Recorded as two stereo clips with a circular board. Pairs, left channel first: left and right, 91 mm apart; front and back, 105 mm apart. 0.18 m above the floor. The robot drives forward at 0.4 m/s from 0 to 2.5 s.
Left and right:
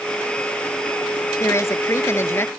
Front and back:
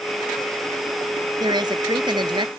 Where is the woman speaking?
145° left; by 2.5 s 150° left.